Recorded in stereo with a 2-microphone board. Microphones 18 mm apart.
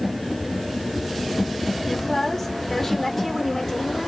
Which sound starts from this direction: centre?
A woman speaking, at 1.9 s.